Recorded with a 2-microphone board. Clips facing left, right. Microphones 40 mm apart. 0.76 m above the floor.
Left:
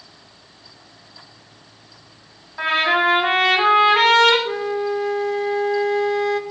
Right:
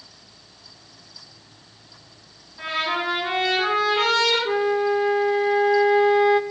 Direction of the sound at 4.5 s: 15° right (ahead or behind).